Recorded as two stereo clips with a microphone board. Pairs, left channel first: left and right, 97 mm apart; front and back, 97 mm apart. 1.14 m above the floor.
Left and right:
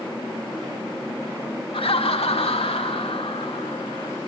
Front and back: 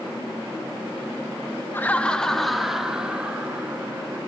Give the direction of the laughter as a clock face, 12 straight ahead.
10 o'clock.